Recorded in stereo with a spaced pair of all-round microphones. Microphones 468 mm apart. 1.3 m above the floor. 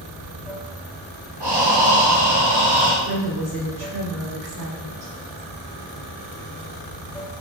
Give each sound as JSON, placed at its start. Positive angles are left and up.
{"t": 0.0, "sound": "running water", "side_deg": 0, "distance_m": 1.9}
{"t": 1.4, "sound": "breathing", "side_deg": -55, "distance_m": 0.9}
{"t": 3.0, "sound": "a woman speaking", "side_deg": -50, "distance_m": 1.6}